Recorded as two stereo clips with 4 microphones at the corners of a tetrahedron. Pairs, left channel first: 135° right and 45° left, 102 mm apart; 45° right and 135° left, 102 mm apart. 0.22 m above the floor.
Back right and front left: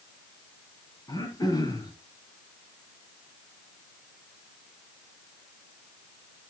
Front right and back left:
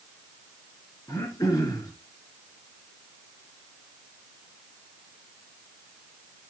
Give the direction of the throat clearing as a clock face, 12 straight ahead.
3 o'clock.